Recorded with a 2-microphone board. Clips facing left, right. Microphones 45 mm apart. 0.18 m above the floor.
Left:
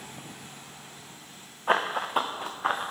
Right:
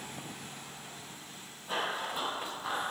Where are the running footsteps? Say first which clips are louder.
Left 9 dB; 70° left (ahead or behind), 0.8 m; by 2.9 s 45° left (ahead or behind), 1.4 m.